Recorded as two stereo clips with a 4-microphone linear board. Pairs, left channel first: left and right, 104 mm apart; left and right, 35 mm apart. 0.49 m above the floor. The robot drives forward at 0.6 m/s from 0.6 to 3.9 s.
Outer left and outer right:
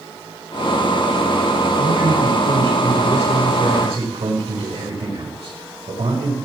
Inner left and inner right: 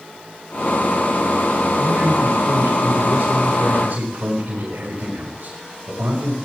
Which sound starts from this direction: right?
A man speaking, at 1.8 s.